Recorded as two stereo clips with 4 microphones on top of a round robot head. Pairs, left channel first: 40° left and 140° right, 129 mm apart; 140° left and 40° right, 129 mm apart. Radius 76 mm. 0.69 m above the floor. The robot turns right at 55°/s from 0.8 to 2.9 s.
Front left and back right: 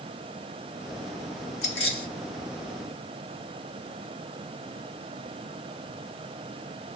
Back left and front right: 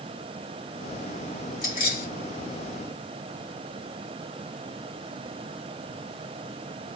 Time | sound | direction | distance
1.6 | keys jangling | 75° left | 3.5 m